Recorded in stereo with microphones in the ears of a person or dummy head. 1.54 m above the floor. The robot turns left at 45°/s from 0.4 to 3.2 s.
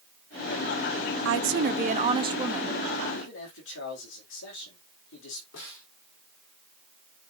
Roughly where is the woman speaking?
Right.